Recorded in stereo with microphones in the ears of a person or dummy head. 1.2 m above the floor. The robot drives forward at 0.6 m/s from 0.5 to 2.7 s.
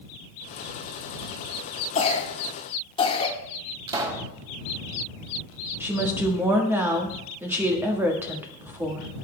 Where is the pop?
25° right (ahead or behind), 1.6 m.